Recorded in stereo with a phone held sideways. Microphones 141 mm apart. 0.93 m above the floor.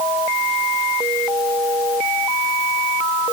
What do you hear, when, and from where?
Only background noise.